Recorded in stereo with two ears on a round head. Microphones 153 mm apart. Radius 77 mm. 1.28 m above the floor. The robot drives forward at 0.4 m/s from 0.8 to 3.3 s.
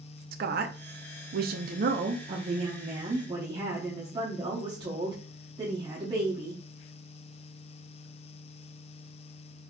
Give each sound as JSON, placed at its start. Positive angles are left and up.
{"t": 0.3, "sound": "a woman speaking", "side_deg": -55, "distance_m": 0.6}